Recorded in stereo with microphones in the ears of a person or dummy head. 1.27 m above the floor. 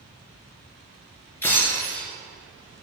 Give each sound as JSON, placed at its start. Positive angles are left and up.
{"t": 1.4, "sound": "breaking glass", "side_deg": 10, "distance_m": 4.5}